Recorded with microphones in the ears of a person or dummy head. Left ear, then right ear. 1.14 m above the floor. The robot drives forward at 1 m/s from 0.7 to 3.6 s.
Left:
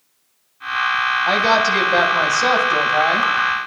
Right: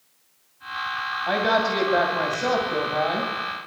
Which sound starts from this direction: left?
A woman speaking, at 1.3 s.